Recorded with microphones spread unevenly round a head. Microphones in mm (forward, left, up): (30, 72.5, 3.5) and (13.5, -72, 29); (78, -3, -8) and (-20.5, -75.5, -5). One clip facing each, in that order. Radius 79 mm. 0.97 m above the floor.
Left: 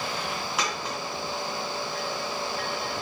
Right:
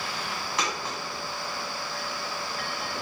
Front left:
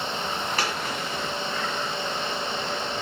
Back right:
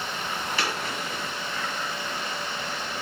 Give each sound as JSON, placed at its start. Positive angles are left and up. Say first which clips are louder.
{"t": 0.6, "sound": "a dropped coin", "louder": "right 1 dB, front left 1 dB", "azimuth_deg": -5, "distance_m": 1.7}